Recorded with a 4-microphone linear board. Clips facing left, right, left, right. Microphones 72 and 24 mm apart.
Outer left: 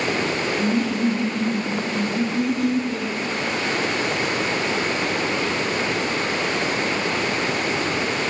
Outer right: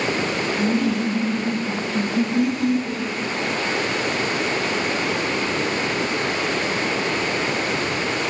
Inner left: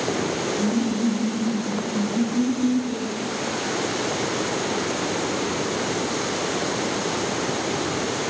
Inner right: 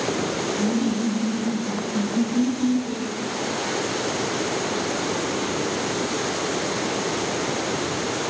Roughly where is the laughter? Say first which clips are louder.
Outer right 1 dB, even; right.